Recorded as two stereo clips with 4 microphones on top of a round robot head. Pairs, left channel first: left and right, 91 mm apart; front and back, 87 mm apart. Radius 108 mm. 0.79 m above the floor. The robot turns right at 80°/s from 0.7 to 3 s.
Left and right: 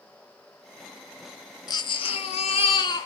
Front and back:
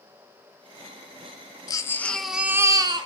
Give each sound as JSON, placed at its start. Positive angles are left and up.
{"t": 1.7, "sound": "a baby crying", "azimuth_deg": 45, "distance_m": 0.8}